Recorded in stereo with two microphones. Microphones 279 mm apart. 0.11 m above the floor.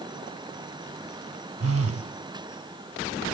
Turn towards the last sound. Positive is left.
turn(degrees=-60)  # may be behind; listen again after turning